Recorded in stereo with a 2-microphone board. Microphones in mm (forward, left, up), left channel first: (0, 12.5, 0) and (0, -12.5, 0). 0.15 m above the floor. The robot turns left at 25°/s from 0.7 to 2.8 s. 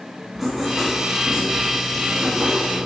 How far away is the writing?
About 1.7 m.